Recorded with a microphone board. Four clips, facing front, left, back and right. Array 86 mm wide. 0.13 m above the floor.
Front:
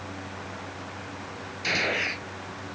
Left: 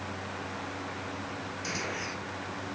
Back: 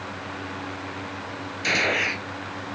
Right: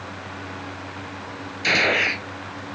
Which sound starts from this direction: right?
A gunshot, at 1.6 s.